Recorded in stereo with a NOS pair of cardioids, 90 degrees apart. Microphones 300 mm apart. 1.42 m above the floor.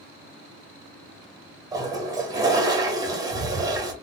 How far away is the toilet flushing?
About 0.9 m.